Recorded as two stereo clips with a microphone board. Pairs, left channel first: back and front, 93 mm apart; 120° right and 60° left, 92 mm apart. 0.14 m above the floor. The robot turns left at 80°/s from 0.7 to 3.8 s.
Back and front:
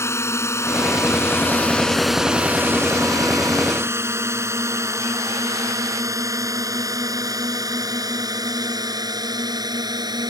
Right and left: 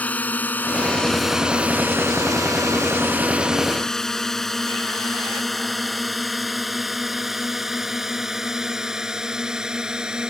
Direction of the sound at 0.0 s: 175° right.